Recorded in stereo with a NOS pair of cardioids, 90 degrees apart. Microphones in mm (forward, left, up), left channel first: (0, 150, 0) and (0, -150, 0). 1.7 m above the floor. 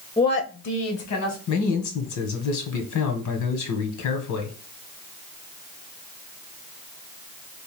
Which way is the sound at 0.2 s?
15° left.